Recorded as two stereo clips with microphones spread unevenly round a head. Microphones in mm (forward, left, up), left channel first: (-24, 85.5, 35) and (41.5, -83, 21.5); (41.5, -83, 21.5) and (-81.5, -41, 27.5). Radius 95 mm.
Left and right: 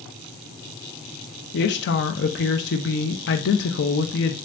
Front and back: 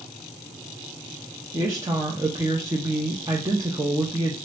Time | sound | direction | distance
1.5 | a woman speaking | 90° left | 0.6 m